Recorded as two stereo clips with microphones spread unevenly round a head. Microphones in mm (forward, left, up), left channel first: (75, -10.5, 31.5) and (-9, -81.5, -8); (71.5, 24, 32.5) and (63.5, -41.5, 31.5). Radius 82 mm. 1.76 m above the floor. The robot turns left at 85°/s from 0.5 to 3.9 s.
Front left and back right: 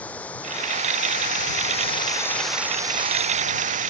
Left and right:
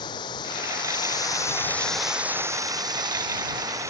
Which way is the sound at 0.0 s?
120° left.